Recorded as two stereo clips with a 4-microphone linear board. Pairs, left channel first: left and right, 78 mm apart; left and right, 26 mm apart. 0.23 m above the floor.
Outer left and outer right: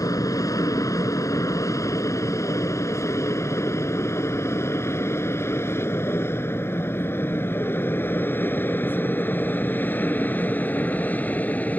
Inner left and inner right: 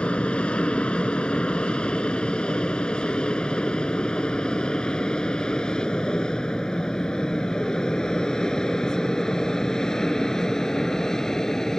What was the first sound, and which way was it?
An aircraft, 45° left (ahead or behind).